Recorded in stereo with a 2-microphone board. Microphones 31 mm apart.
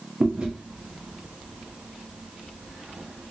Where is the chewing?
30° right (ahead or behind), 0.9 m.